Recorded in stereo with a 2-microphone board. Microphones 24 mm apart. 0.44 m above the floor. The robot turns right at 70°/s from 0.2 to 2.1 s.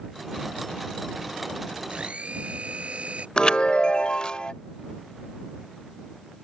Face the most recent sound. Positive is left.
turn(degrees=40)  # may be behind; listen again after turning